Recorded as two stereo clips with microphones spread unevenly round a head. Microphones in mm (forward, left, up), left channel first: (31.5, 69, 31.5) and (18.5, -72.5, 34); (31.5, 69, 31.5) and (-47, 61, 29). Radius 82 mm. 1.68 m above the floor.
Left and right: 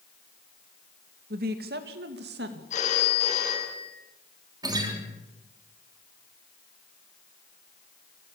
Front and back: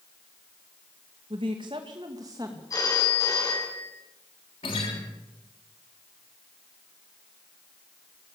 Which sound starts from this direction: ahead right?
A guitar, at 4.6 s.